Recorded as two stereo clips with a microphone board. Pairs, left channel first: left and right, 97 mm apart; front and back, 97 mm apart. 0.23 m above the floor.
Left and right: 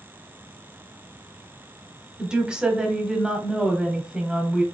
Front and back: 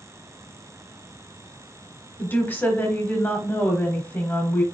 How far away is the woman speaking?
About 1.0 m.